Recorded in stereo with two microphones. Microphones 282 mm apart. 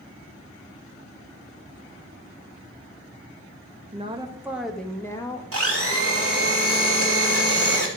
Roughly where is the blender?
Right.